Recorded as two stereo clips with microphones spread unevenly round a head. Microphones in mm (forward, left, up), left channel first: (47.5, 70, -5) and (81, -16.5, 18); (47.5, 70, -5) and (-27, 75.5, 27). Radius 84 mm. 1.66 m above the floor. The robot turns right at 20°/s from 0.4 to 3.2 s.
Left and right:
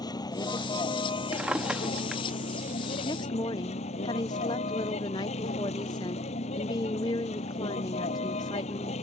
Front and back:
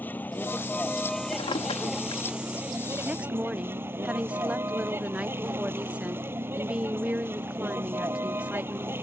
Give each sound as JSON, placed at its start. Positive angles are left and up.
{"t": 0.0, "sound": "a vehicle", "azimuth_deg": 65}
{"t": 1.3, "sound": "a drawer", "azimuth_deg": -20}
{"t": 3.0, "sound": "a woman speaking", "azimuth_deg": 160}